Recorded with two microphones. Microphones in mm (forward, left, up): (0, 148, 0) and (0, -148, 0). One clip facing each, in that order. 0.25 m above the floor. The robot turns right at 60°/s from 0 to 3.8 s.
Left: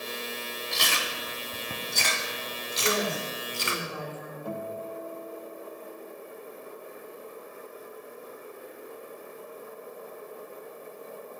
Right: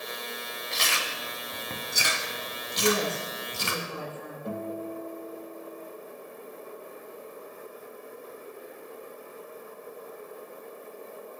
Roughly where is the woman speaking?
Right.